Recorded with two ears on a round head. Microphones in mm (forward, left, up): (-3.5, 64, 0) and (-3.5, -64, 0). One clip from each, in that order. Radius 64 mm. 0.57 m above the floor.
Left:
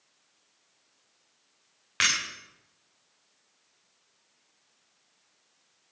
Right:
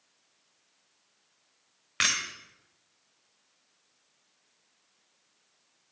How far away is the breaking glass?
About 8 m.